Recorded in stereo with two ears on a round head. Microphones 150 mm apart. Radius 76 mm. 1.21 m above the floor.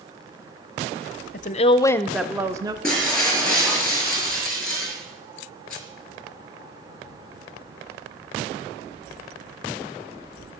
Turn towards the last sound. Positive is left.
turn(degrees=5)  # may be behind; listen again after turning